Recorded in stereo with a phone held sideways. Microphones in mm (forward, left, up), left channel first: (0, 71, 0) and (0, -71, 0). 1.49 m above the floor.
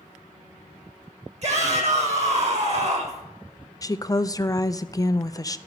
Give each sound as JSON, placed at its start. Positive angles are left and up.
{"t": 1.4, "sound": "a shout", "side_deg": -55, "distance_m": 5.5}
{"t": 3.8, "sound": "a woman speaking", "side_deg": 25, "distance_m": 0.5}